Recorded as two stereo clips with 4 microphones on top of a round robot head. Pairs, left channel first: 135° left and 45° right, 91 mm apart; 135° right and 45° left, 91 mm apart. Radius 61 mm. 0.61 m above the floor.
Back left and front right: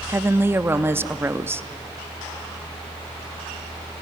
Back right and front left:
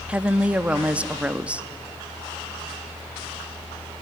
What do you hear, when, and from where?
0.1 s a woman speaking: 15° right, 0.7 m